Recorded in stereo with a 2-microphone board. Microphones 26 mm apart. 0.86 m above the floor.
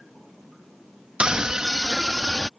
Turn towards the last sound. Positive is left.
turn(degrees=-5)  # may be behind; listen again after turning